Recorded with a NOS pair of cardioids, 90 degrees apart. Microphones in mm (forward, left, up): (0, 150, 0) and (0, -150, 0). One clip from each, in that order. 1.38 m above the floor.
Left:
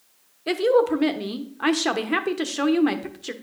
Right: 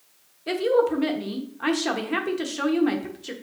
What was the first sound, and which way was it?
A woman speaking, 25° left.